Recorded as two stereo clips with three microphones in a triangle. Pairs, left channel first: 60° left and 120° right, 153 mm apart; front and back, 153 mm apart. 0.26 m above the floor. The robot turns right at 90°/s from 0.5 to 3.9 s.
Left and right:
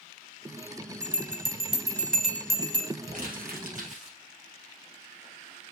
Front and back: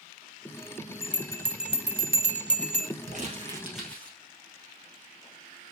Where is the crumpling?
155° right, 2 m; by 4.2 s 80° right, 2 m.